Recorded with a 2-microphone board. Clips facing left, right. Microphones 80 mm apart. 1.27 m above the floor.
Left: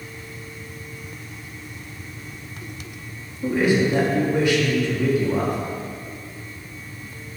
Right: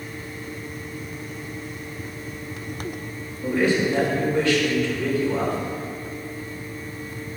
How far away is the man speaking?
About 2.5 m.